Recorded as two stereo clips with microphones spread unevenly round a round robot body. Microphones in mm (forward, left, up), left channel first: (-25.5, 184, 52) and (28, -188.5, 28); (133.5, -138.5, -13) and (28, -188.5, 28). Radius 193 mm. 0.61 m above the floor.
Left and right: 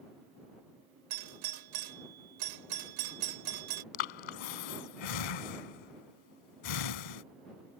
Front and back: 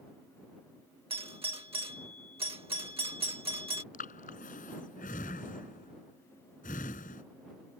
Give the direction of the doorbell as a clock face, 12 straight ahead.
4 o'clock.